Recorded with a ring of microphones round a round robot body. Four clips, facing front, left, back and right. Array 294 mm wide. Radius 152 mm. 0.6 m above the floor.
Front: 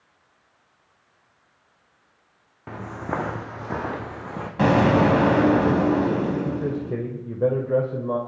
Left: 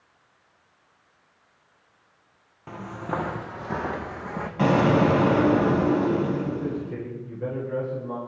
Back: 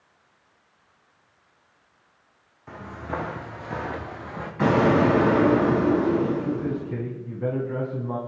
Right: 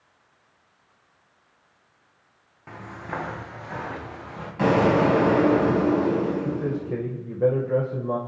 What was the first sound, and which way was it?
Footsteps, 10° left.